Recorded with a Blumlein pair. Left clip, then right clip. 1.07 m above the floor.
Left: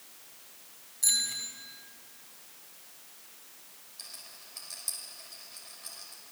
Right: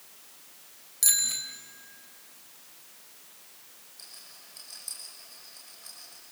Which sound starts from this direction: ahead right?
A bicycle bell, at 1.0 s.